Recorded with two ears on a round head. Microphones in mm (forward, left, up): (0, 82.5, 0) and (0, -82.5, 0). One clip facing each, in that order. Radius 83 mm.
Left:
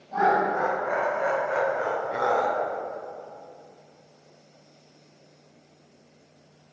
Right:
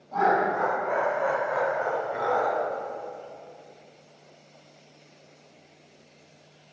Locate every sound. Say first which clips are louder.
0.1 s laughter: left 1 dB; 10° left (ahead or behind), 2 m; by 2.6 s 70° left (ahead or behind), 0.8 m